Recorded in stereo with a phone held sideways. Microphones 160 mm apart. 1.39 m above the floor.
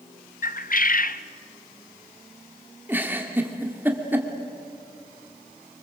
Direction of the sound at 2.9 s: 10° right (ahead or behind).